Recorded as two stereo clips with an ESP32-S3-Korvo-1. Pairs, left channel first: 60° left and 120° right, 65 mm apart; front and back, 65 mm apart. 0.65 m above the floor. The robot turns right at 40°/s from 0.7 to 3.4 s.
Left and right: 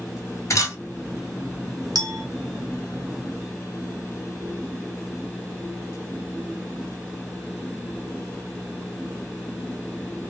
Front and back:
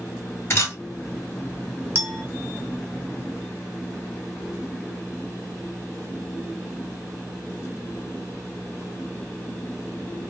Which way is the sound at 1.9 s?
125° right.